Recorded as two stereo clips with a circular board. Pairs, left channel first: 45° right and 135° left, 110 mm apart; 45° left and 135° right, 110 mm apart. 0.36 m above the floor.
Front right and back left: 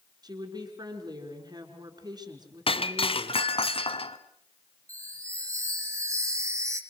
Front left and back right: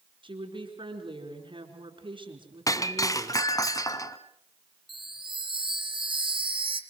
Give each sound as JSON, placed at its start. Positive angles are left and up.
{"t": 0.2, "sound": "a woman speaking", "azimuth_deg": -175, "distance_m": 5.0}
{"t": 2.7, "sound": "breaking glass", "azimuth_deg": -10, "distance_m": 1.3}
{"t": 4.9, "sound": "a chime", "azimuth_deg": -165, "distance_m": 3.0}